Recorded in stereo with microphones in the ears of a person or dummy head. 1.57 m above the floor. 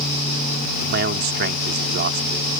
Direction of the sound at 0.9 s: 45° right (ahead or behind).